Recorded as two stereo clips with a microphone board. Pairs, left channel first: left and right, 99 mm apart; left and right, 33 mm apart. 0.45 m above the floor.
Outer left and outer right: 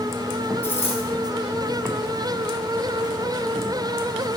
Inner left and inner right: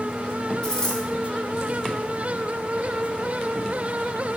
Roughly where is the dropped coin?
Left.